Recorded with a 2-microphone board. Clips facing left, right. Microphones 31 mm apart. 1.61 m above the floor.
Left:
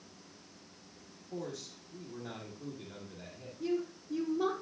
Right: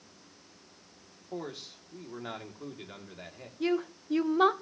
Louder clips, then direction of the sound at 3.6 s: Right 5 dB; 65° right (ahead or behind).